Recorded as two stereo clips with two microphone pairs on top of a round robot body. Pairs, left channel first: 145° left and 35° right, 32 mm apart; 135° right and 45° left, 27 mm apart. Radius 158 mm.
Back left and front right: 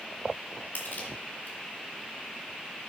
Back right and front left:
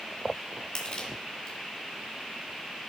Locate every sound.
0.8 s crushing: 175° left, 3 m